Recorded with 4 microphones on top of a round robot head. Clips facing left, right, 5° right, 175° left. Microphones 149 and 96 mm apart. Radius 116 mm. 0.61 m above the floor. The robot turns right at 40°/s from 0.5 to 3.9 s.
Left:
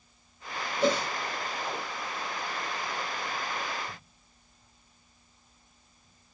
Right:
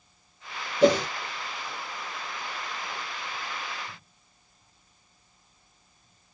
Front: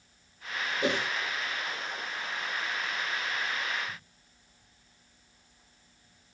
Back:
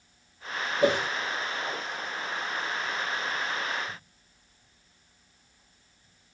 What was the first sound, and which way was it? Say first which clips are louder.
A whoosh: right 7 dB, back 6 dB; 115° right.